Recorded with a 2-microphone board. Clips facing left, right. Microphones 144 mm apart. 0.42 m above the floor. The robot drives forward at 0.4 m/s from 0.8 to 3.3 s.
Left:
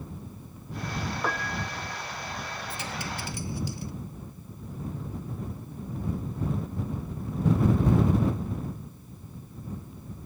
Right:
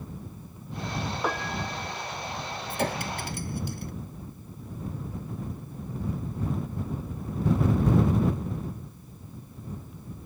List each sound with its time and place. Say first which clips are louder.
1.2 s a piano: right 3 dB; 10° right (ahead or behind)
2.7 s a clink: right 10 dB; 55° right (ahead or behind)